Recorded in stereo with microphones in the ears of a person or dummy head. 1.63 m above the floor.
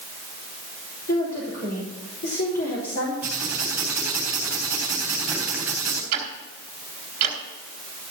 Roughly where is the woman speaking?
Left.